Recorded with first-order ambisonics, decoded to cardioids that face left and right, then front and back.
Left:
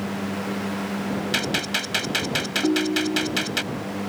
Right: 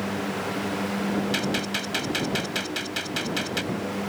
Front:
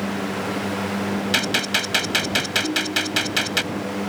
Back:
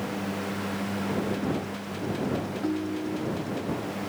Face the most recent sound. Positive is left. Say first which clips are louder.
# left 8 dB, front 8 dB
turn(degrees=85)